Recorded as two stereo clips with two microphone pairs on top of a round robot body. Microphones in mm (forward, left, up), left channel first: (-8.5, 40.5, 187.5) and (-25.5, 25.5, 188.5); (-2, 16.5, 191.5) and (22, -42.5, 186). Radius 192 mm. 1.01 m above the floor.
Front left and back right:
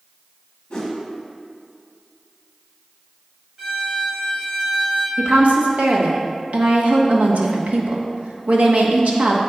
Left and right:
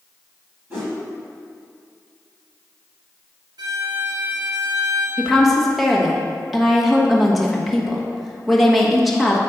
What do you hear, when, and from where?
0.7 s a whoosh: 5° right, 0.9 m
3.6 s a violin: 70° right, 1.0 m
5.2 s a woman speaking: 155° right, 1.4 m